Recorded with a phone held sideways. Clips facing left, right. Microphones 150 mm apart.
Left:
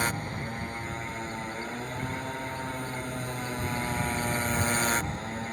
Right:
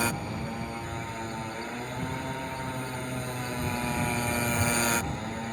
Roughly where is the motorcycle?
Centre.